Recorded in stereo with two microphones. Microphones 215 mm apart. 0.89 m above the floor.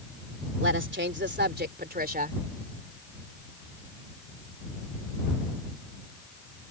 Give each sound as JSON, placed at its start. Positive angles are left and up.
{"t": 0.6, "sound": "a woman speaking", "side_deg": -60}